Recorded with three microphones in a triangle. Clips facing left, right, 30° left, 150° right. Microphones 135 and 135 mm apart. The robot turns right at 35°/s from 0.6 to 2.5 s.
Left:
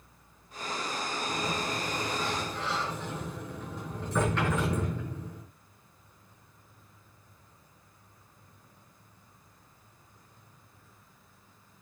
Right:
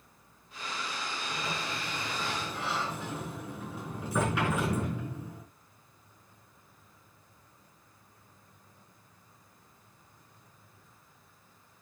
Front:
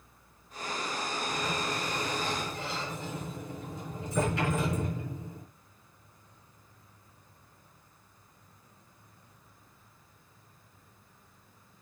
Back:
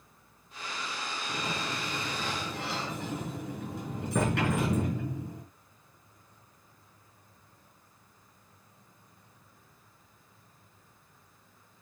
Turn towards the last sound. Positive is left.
turn(degrees=-170)